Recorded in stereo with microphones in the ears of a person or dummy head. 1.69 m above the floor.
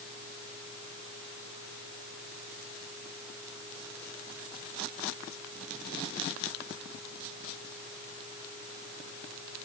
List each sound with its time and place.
Only background noise.